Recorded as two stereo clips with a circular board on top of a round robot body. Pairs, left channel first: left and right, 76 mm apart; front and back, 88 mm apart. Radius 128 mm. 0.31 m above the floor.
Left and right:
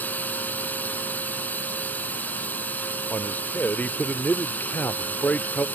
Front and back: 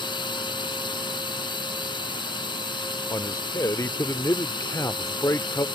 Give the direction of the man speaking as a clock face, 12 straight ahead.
11 o'clock.